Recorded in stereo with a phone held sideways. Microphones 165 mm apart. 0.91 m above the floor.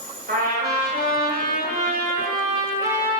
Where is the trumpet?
70° right (ahead or behind), 1.2 m.